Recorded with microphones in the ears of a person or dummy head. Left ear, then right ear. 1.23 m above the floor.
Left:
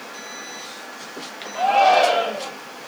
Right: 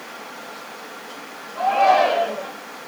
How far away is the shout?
About 2.5 m.